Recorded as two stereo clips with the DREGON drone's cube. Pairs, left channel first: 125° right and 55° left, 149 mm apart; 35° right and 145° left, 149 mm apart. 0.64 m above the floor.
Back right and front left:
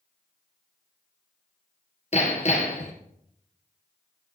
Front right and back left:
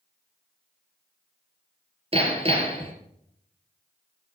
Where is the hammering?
165° right, 3 m.